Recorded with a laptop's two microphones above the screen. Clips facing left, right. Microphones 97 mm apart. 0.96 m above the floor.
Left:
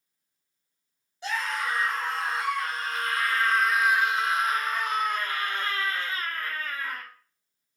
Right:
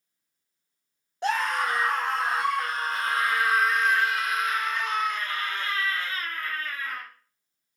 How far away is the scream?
About 1.6 m.